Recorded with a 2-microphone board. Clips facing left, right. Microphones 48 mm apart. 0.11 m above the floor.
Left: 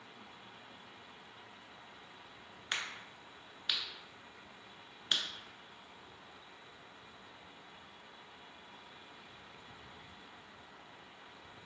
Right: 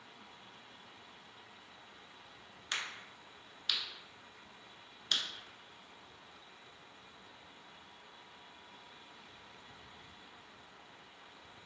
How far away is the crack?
About 0.6 m.